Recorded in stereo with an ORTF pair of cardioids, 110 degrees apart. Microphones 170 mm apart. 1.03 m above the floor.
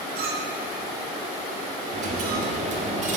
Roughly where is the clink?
Right.